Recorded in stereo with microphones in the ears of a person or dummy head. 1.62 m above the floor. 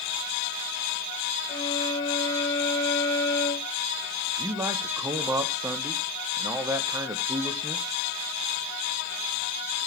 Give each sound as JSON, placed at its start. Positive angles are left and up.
{"t": 1.5, "sound": "a flute", "side_deg": 25, "distance_m": 3.5}
{"t": 4.4, "sound": "a man speaking", "side_deg": -15, "distance_m": 1.2}